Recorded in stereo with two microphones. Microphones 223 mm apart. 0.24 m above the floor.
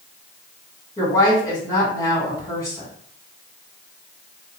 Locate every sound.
1.0 s a woman speaking: 15° left (ahead or behind), 1.9 m